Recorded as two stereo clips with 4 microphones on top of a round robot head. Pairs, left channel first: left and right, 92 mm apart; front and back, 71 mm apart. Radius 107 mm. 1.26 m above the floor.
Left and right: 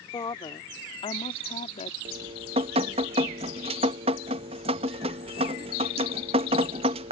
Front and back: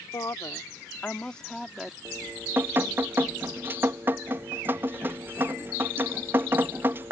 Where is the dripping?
110° right.